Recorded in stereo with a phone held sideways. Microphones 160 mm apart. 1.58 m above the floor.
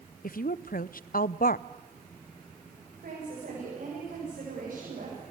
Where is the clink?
No clink in this recording.